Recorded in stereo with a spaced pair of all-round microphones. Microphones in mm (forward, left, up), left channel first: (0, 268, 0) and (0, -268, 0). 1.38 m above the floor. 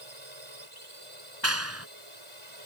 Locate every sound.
0.0 s a drone: 70° right (ahead or behind)
1.4 s a clap: 25° right (ahead or behind)